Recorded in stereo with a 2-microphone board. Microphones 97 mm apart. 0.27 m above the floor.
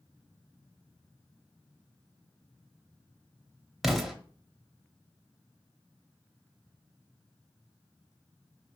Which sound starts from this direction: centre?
An explosion, at 3.8 s.